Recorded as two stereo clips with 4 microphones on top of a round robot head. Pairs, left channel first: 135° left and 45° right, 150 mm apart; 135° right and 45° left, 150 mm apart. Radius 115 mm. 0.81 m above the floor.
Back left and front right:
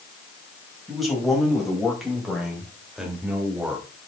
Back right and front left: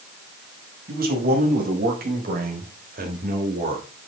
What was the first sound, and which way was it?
A man speaking, 45° left.